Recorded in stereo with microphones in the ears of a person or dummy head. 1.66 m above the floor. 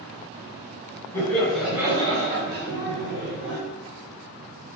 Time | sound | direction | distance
1.1 | laughter | 15° left (ahead or behind) | 1.0 m